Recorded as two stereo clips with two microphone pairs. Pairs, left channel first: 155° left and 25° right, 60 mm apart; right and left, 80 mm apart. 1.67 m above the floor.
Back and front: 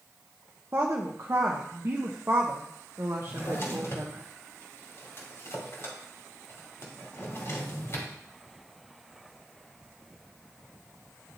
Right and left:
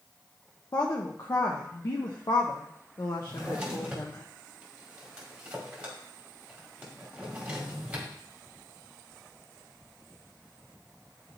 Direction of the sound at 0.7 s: 60° right.